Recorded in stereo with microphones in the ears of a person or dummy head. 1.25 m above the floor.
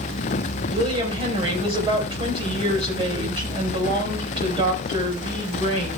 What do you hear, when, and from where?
0.7 s a woman speaking: 25° right (ahead or behind), 4 m